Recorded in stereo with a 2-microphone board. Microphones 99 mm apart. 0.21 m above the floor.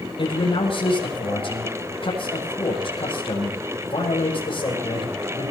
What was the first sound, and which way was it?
A man speaking, 60° left (ahead or behind).